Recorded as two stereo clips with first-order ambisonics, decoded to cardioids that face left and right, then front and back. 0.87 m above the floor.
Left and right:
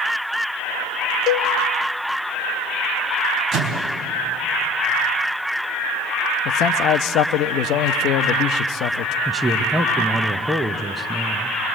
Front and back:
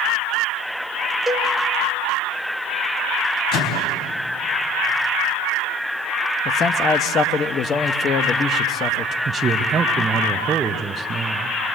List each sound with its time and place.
1.3 s a cowbell: 100° left, 0.8 m
3.5 s a microwave: 35° right, 4 m
6.5 s a man speaking: 55° left, 0.8 m
9.2 s a man speaking: 170° right, 0.8 m